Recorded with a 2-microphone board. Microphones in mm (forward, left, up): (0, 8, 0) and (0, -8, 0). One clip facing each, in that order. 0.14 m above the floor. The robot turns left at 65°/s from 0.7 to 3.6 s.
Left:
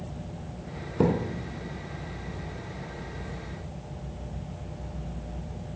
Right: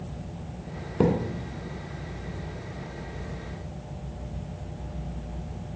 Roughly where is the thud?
Centre.